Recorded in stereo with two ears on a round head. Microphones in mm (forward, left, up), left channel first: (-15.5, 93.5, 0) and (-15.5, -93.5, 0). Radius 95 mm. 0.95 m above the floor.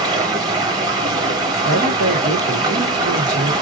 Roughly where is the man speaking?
Right.